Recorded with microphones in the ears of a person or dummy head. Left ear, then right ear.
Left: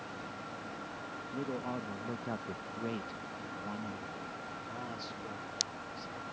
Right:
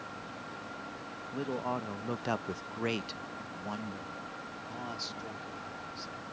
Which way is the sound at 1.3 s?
20° right (ahead or behind).